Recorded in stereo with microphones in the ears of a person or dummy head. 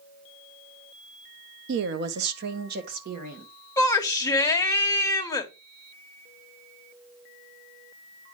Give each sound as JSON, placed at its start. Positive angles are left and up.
{"t": 1.7, "sound": "a woman speaking", "side_deg": -70, "distance_m": 0.6}
{"t": 3.8, "sound": "a shout", "side_deg": 15, "distance_m": 1.1}